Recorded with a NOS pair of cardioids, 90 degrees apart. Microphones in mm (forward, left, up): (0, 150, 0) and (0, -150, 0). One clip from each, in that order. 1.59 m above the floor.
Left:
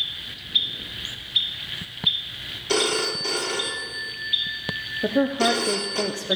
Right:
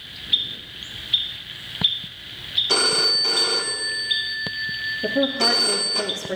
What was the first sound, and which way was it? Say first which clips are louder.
A phone ringing: right 3 dB; 15° right.